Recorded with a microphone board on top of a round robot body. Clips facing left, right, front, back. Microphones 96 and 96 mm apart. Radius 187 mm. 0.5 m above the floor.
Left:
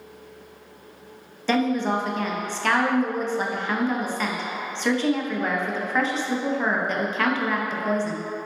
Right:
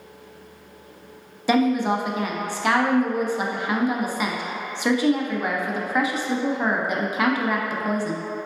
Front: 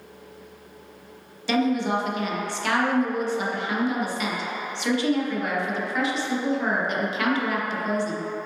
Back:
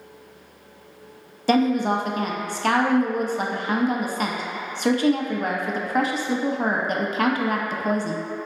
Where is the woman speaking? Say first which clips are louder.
Right 2 dB, back 3 dB; 165° right, 0.8 m.